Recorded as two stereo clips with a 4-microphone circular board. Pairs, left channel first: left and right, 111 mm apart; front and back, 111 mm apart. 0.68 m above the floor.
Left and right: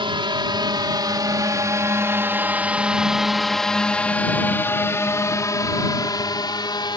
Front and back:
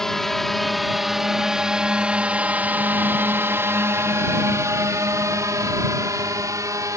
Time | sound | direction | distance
0.0 | a drone | 85° right | ?